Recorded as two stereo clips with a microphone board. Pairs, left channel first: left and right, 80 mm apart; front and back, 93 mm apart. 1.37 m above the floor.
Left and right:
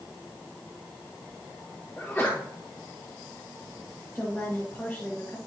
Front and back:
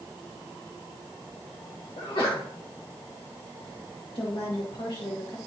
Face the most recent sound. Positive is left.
turn(degrees=5)